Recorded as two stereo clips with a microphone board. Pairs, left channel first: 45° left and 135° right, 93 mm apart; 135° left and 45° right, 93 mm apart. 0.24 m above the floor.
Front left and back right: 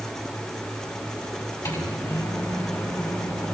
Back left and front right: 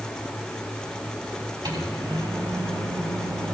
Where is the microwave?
5° right, 4.5 m.